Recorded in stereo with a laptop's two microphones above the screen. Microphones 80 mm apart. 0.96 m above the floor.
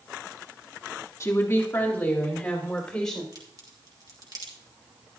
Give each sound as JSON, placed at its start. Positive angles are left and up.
{"t": 1.2, "sound": "a woman speaking", "side_deg": 40, "distance_m": 1.8}
{"t": 3.3, "sound": "a crack", "side_deg": -55, "distance_m": 1.9}